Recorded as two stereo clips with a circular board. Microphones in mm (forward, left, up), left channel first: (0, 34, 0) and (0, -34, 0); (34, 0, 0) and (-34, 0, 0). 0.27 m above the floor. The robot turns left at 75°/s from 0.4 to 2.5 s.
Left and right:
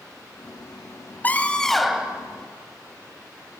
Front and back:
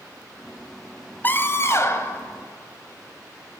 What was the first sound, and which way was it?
A scream, 45° left.